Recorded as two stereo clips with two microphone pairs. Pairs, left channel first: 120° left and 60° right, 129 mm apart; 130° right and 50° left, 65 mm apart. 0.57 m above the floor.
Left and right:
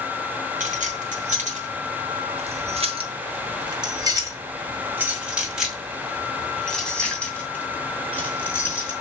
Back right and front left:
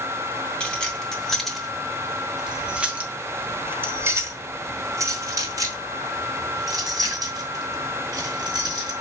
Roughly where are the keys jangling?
Ahead right.